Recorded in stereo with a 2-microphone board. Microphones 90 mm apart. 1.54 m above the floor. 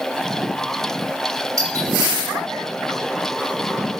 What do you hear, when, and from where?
1.6 s a doorbell: 45° right (ahead or behind), 7 m